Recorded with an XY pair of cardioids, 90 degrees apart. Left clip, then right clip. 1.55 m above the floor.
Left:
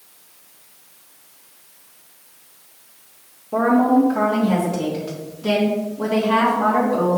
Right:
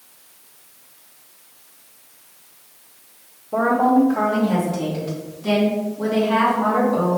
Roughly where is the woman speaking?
Ahead left.